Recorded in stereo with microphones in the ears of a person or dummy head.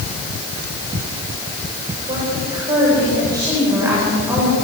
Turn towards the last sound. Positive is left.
turn(degrees=-15)  # may be behind; listen again after turning